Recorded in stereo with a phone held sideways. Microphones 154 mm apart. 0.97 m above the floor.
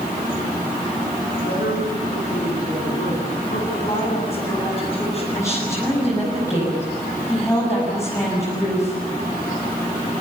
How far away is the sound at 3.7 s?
About 9.5 m.